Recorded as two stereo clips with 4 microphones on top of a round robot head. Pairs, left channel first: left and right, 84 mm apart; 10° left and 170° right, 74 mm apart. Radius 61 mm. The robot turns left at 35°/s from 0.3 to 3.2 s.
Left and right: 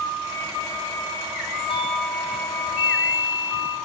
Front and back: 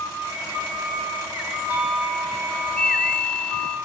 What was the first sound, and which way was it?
A doorbell, 125° left.